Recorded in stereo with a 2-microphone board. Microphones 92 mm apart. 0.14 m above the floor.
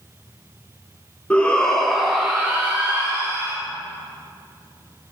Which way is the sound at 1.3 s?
15° left (ahead or behind).